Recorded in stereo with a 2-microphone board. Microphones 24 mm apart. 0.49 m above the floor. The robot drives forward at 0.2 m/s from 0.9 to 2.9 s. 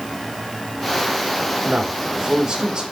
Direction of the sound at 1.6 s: 30° right (ahead or behind).